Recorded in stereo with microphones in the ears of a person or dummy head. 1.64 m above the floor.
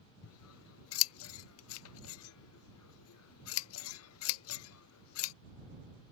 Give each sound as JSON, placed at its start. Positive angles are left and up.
{"t": 0.2, "sound": "scissors", "side_deg": 75}